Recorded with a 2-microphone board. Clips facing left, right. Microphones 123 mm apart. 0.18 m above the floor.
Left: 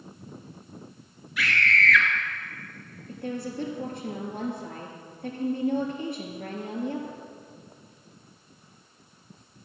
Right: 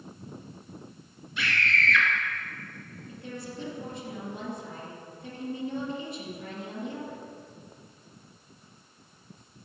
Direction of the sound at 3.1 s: 60° left (ahead or behind).